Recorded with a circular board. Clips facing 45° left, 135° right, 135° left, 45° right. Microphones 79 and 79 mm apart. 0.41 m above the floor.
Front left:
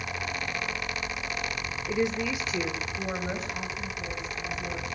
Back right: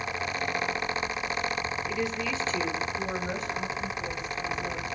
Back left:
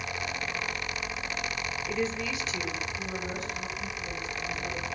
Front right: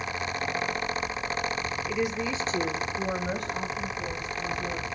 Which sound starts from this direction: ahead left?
A woman speaking, at 1.9 s.